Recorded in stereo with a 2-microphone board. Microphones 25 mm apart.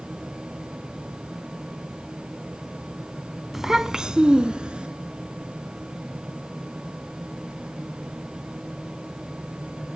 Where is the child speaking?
15° right (ahead or behind), 0.6 m; by 4.9 s 45° right (ahead or behind), 1.2 m.